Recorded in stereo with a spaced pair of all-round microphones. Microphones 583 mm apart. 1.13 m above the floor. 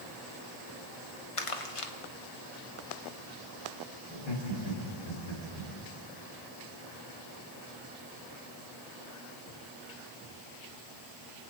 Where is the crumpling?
65° left (ahead or behind), 1.0 m.